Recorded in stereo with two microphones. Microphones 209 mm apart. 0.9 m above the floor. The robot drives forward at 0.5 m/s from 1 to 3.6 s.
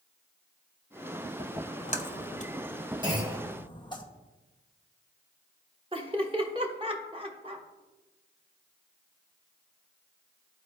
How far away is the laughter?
About 1.0 m.